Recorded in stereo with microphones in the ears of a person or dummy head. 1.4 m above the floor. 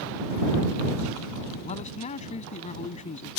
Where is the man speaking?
35° left (ahead or behind).